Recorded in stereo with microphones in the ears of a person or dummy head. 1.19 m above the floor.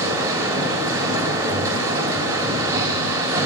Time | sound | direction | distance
0.0 | a machine running | 15° right (ahead or behind) | 1.8 m